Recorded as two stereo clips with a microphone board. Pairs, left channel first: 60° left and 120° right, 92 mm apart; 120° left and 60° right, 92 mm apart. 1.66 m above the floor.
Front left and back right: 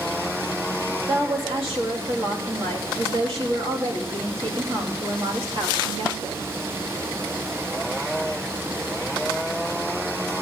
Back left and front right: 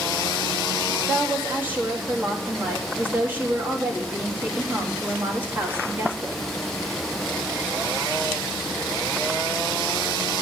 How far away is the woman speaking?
About 3 m.